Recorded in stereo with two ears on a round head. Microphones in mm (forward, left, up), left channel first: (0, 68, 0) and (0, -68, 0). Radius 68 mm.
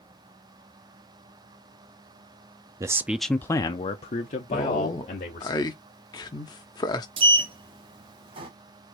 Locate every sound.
2.8 s a man speaking: 20° right (ahead or behind), 0.5 m; by 5.5 s 60° left (ahead or behind), 1.4 m
4.5 s a man speaking: 30° left (ahead or behind), 0.9 m
7.2 s a sliding door: 35° right (ahead or behind), 0.8 m